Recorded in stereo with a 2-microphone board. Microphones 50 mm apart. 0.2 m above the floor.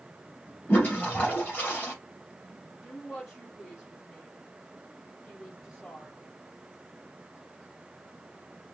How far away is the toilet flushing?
About 3 m.